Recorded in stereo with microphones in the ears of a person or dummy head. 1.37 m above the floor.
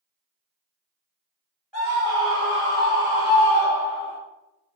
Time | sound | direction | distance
1.7 | a scream | centre (ahead or behind) | 1.7 m